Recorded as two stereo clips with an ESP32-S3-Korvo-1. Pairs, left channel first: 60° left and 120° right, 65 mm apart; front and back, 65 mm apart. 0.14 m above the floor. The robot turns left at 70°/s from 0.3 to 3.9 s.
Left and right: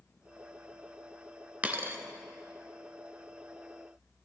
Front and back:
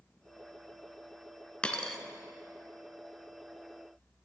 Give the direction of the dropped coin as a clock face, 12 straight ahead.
2 o'clock.